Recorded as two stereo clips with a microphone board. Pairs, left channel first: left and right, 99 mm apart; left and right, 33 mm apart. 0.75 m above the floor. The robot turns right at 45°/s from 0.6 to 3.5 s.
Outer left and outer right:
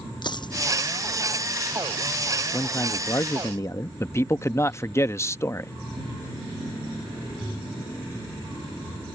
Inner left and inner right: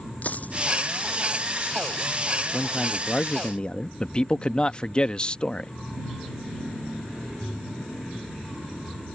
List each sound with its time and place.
0.2 s a dropped coin: 50° left (ahead or behind)
2.5 s a man speaking: 45° left; by 3.9 s 85° left
4.0 s a man speaking: 30° left (ahead or behind)